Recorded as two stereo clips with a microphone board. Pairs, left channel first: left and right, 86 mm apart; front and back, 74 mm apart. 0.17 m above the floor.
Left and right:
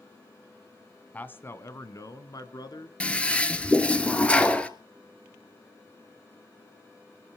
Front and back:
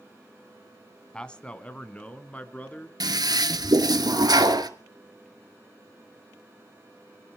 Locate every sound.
1.1 s a man speaking: 60° left, 1.0 m; by 2.9 s 65° left, 1.9 m
3.0 s a toilet flushing: 165° left, 0.9 m